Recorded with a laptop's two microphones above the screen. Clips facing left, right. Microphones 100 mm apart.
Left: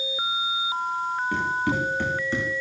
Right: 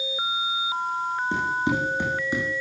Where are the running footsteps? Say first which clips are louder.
Right 1 dB; 25° right (ahead or behind), 4.5 m; by 2.5 s 10° right (ahead or behind), 4 m.